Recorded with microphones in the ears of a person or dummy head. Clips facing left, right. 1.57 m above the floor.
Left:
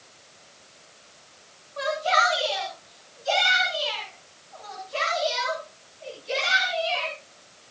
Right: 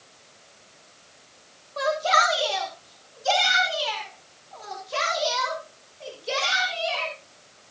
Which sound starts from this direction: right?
A shout, at 1.8 s.